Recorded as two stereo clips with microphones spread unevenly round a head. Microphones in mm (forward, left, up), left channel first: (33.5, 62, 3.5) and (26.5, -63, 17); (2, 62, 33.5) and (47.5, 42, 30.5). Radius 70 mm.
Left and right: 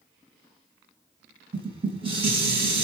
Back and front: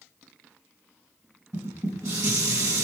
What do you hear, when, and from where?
1.5 s dishes clattering: 50° right, 4 m